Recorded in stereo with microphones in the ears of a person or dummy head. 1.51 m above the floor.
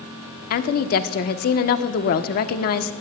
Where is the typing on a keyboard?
No typing on a keyboard in this recording.